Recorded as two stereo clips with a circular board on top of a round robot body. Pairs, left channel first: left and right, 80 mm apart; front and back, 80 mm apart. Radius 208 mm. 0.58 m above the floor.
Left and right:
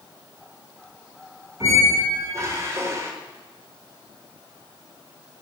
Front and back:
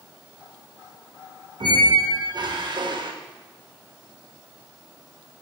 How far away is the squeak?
About 1.5 m.